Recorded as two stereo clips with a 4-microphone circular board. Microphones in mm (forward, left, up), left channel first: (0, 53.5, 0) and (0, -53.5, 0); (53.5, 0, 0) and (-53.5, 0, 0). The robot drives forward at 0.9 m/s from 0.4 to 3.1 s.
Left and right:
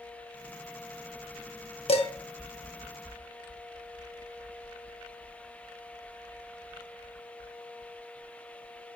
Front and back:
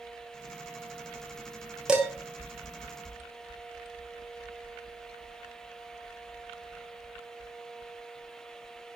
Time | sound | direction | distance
1.9 | dishes clattering | 100° left | 1.4 m